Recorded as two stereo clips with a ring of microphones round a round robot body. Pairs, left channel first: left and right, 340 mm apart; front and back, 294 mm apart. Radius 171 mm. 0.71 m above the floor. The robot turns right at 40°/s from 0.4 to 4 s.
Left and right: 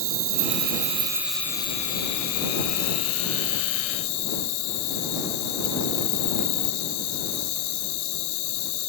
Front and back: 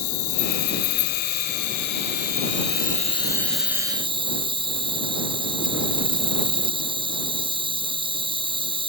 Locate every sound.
0.0 s an insect: 35° right; by 8.9 s 105° left